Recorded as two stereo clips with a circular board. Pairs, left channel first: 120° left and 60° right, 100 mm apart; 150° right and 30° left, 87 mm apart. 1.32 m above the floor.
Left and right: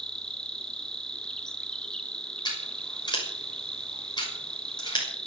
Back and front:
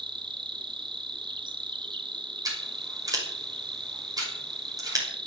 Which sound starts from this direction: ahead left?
An insect, at 0.0 s.